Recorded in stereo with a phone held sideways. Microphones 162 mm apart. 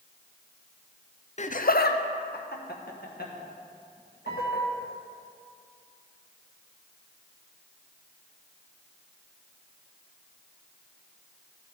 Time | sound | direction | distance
1.4 | laughter | 45° left (ahead or behind) | 0.5 m
4.3 | a piano | 85° right | 1.4 m